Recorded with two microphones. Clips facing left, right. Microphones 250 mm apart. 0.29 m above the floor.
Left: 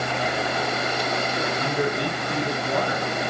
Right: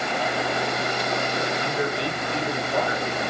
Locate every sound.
1.6 s a man speaking: 55° left (ahead or behind), 2.5 m